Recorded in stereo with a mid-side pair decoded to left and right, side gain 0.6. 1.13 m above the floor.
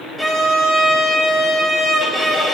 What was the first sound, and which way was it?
A violin, 10° right.